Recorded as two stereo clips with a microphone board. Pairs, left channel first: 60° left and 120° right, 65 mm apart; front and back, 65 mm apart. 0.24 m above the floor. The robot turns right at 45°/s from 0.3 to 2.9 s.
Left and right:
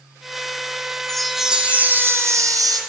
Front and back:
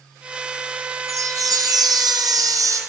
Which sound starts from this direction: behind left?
A chime, at 1.1 s.